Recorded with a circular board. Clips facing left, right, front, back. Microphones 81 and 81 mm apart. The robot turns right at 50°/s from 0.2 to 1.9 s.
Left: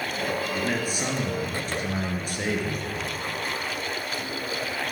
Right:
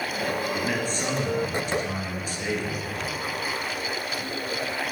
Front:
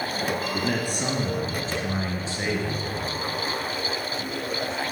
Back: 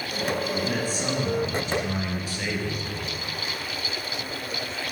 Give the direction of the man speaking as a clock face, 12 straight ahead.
12 o'clock.